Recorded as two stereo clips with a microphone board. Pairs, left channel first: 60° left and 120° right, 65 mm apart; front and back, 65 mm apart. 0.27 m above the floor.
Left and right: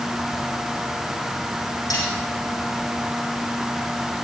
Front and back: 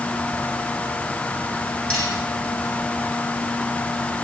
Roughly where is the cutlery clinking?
Left.